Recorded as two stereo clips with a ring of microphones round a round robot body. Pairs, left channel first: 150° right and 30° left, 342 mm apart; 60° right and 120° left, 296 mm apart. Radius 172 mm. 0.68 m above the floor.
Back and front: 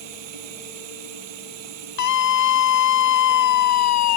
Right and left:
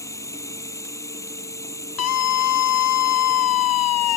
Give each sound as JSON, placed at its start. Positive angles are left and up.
{"t": 0.0, "sound": "running water", "azimuth_deg": 20}
{"t": 2.0, "sound": "a scream", "azimuth_deg": -105}